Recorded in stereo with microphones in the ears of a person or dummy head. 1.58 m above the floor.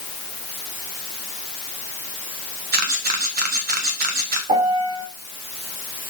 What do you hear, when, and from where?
2.7 s a camera shutter: 55° right (ahead or behind), 1.4 m
4.5 s a piano: 35° right (ahead or behind), 5 m